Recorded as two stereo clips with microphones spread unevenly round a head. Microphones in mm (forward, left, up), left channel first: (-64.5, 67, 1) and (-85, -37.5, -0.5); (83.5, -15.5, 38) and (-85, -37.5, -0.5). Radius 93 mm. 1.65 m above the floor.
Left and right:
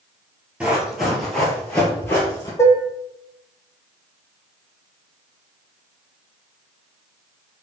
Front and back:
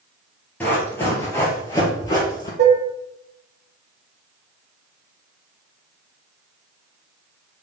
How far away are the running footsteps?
About 1.8 m.